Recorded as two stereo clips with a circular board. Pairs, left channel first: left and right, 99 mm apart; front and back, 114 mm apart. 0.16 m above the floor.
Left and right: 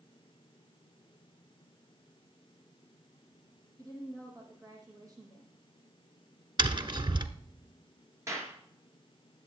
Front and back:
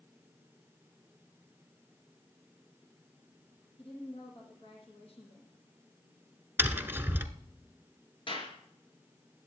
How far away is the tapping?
About 0.9 m.